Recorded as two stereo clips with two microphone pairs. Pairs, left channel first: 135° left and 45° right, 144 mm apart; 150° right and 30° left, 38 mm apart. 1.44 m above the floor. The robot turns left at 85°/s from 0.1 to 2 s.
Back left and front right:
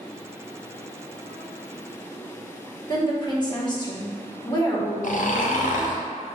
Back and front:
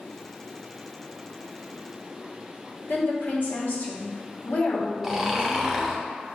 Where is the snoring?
115° left, 0.6 m.